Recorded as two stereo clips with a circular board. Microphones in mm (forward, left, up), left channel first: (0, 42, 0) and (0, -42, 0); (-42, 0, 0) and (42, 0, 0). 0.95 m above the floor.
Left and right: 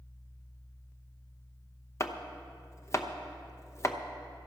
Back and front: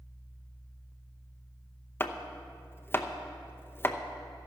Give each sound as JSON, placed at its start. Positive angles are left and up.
{"t": 2.0, "sound": "chopping", "azimuth_deg": 125, "distance_m": 0.8}